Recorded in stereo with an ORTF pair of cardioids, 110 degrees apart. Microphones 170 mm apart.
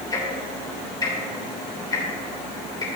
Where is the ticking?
20° left, 3.5 m.